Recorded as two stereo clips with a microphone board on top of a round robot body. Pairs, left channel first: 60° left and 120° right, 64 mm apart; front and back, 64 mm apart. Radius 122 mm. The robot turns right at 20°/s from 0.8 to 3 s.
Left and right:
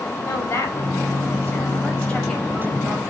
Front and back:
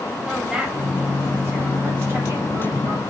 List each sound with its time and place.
0.3 s a woman speaking: 100° left, 5 m; by 3.0 s 140° left, 5 m